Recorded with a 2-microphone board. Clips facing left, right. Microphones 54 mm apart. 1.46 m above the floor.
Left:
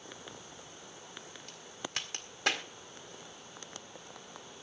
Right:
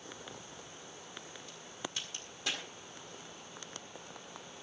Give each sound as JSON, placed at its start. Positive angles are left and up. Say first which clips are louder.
{"t": 1.5, "sound": "a crack", "louder": "left 3 dB", "side_deg": 60, "distance_m": 1.7}